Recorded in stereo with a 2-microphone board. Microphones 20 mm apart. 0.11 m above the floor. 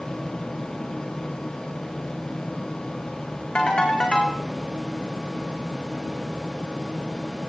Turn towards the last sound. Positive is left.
turn(degrees=60)  # may be behind; listen again after turning